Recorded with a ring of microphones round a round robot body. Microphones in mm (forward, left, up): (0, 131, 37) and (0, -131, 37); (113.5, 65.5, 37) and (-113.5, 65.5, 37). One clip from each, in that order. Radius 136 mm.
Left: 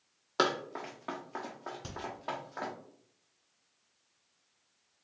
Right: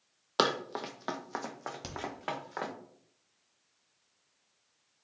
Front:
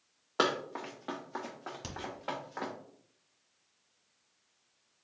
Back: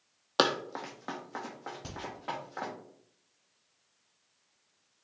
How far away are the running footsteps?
About 0.5 m.